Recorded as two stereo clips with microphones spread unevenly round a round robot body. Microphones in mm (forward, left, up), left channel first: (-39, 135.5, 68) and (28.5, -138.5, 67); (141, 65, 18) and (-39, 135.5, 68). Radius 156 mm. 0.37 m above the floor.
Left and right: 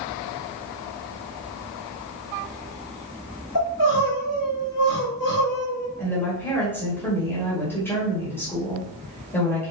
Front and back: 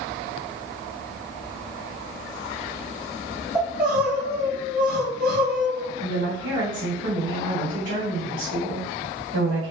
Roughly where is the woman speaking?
Behind.